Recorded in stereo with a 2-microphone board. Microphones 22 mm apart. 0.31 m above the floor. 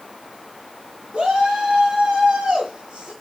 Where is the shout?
45° right (ahead or behind), 5 m.